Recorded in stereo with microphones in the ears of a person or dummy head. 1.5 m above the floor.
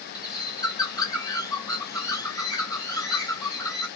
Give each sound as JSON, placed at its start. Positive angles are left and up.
{"t": 0.1, "sound": "a bird", "side_deg": 20, "distance_m": 0.8}